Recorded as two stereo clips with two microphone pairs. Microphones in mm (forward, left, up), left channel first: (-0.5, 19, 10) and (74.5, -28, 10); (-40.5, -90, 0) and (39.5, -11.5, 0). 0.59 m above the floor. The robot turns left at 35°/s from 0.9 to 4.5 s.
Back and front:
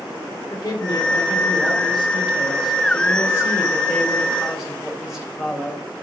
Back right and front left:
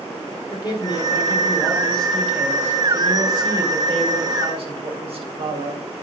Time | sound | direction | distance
0.5 | a man speaking | straight behind | 2 m